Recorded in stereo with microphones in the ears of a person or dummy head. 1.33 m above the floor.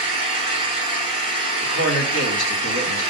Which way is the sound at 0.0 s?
45° left (ahead or behind).